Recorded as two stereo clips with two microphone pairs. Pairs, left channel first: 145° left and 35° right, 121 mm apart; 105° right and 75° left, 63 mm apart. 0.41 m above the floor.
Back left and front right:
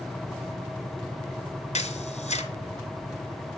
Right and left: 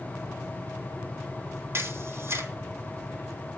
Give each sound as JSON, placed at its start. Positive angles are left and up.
{"t": 1.7, "sound": "a camera shutter", "azimuth_deg": 125, "distance_m": 2.5}